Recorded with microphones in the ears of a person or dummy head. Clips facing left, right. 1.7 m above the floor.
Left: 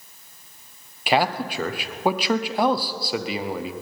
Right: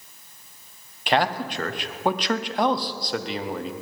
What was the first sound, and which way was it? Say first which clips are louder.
A man speaking: left 1 dB; 5° left (ahead or behind).